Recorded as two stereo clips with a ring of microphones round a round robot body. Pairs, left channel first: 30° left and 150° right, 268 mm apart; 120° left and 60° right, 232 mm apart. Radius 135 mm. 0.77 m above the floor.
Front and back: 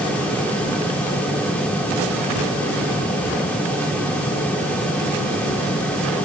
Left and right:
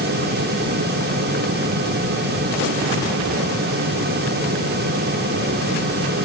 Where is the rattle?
I don't hear a rattle.